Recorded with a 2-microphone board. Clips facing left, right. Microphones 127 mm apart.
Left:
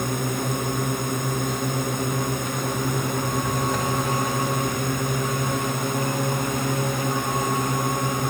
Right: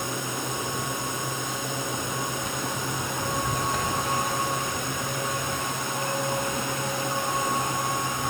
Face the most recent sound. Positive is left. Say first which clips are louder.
# left 5 dB
turn(degrees=55)  # may be behind; listen again after turning